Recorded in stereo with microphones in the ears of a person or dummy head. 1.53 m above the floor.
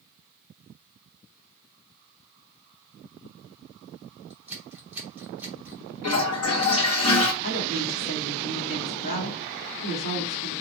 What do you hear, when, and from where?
4.3 s scissors: 10° right (ahead or behind), 0.7 m
6.0 s a toilet flushing: 75° left (ahead or behind), 0.7 m
7.4 s a woman speaking: 40° left (ahead or behind), 1.3 m